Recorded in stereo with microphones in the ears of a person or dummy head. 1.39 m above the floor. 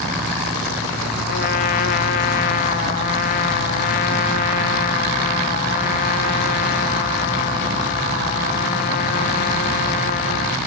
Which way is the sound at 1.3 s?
30° left (ahead or behind).